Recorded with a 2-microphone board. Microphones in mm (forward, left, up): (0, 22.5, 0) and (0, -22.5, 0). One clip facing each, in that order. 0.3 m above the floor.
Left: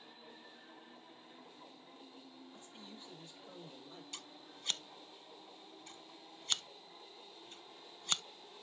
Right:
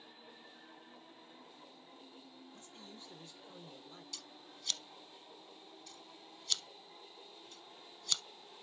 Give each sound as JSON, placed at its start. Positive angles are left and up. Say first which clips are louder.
{"t": 2.5, "sound": "a man speaking", "louder": "even", "side_deg": 25, "distance_m": 8.5}
{"t": 4.1, "sound": "scissors", "louder": "left 1 dB", "side_deg": 35, "distance_m": 0.6}